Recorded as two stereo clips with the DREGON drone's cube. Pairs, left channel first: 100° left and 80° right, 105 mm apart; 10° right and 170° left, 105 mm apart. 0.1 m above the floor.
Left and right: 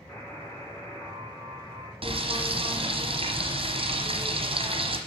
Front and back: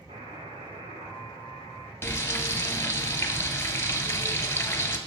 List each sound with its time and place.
0.1 s a buzzer: 170° left, 2.5 m
2.0 s frying: 80° right, 0.9 m